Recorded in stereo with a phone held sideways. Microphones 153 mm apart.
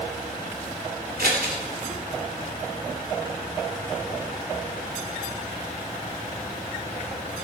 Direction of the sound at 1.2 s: 85° right.